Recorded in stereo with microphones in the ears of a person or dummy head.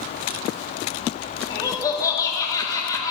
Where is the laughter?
15° left (ahead or behind), 2.0 m.